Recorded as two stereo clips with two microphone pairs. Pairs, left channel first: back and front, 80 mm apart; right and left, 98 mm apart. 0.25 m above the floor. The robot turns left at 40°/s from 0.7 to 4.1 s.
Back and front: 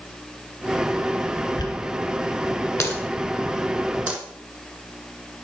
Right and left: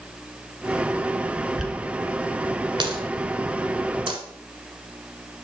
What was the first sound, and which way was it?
A dropped coin, 175° left.